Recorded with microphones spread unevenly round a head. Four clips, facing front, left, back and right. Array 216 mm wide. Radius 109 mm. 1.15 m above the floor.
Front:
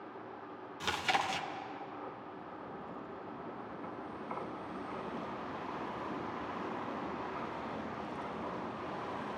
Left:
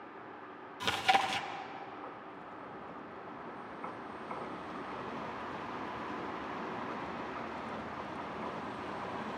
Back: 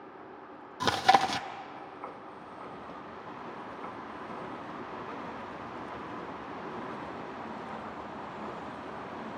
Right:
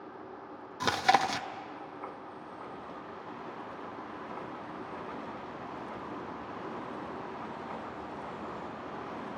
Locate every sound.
0.8 s chewing: 155° right, 0.8 m